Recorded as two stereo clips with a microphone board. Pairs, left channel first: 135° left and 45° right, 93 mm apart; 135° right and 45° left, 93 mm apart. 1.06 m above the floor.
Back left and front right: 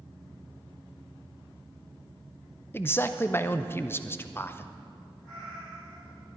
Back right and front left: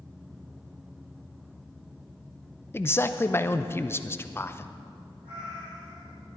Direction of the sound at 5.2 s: 50° left.